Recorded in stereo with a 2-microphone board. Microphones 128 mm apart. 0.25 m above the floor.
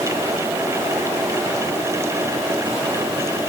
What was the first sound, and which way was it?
Only background noise.